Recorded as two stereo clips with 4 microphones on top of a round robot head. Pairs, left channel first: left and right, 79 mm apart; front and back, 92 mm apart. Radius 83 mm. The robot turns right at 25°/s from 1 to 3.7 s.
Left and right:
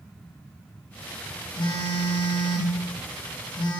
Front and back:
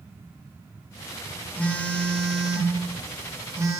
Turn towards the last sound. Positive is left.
turn(degrees=125)